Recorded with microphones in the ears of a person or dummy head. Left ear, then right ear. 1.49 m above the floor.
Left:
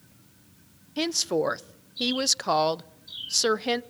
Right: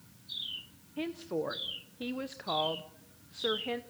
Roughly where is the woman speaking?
Left.